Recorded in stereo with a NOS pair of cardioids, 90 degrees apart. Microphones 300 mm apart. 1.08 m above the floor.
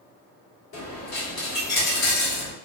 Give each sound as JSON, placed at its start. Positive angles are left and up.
{"t": 0.7, "sound": "a dropped coin", "azimuth_deg": 65, "distance_m": 1.4}